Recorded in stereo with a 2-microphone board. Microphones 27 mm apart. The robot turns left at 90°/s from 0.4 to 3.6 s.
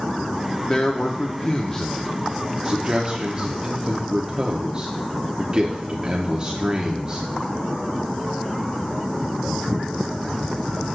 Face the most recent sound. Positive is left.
turn(degrees=-130)